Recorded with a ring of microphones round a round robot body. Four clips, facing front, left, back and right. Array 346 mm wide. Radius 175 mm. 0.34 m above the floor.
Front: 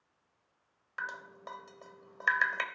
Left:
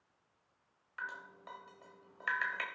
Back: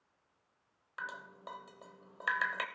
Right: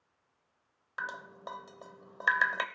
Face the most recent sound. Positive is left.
turn(degrees=-85)